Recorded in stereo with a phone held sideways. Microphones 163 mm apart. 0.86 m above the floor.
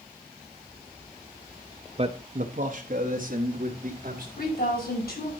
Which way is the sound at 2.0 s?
40° right (ahead or behind).